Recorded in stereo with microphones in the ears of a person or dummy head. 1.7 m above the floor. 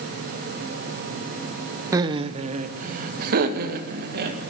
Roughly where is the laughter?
Centre.